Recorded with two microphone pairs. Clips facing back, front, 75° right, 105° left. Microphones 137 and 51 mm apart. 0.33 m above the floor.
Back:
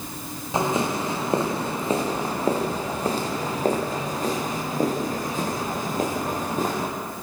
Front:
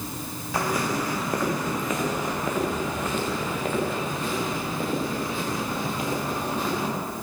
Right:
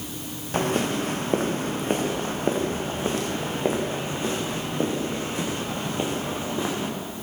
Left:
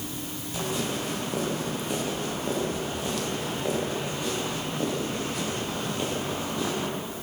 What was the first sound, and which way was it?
Footsteps, 115° right.